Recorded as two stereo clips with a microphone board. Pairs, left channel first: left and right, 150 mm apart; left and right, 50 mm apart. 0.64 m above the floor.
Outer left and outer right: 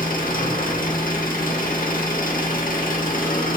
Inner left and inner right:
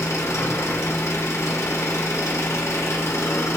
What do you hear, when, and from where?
0.0 s an engine running: 65° left (ahead or behind), 0.8 m